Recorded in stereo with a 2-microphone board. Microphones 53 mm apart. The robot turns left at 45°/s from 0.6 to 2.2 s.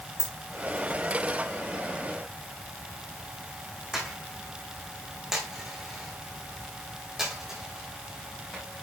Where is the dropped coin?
60° left (ahead or behind), 3.5 m; by 8.6 s 10° right (ahead or behind), 3.5 m.